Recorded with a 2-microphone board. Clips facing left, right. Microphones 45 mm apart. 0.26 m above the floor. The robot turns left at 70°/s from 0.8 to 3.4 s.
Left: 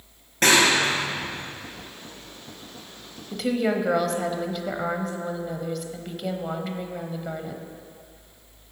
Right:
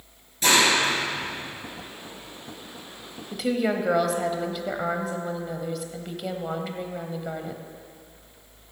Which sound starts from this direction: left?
A clap, at 0.4 s.